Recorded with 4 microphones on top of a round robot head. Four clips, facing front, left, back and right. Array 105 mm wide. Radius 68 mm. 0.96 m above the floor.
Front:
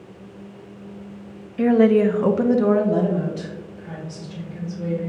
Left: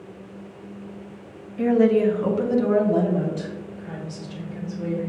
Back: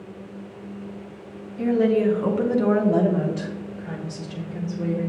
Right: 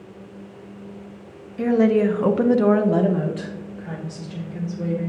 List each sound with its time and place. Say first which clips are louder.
1.6 s a woman speaking: even, front 4 dB; 20° right, 0.8 m; by 5.1 s 140° right, 1.9 m